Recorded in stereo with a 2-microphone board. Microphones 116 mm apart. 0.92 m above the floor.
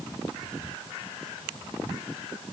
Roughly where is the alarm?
I don't hear an alarm.